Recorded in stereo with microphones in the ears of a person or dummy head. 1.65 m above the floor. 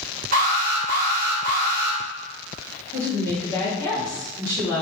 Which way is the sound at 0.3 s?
45° right (ahead or behind).